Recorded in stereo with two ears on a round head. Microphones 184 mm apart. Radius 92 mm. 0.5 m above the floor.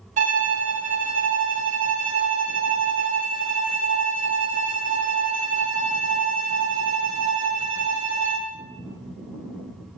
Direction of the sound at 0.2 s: 40° right (ahead or behind).